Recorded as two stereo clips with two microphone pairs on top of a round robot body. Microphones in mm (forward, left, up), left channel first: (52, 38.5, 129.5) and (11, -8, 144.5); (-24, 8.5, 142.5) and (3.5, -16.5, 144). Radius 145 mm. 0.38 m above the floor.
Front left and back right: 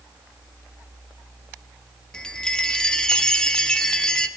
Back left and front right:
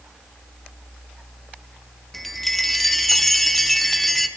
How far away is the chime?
About 0.9 m.